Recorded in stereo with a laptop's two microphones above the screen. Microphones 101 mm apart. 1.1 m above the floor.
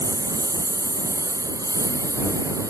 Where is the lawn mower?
40° right (ahead or behind); by 2.7 s 35° right (ahead or behind).